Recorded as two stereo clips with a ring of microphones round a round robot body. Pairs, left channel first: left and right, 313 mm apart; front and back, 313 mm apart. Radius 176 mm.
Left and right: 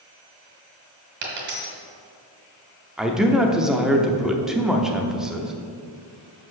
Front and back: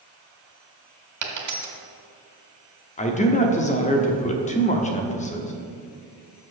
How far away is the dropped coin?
About 1.6 m.